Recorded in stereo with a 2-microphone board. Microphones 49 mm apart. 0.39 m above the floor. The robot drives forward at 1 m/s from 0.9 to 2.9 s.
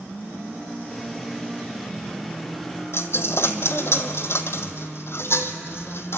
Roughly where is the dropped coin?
Left.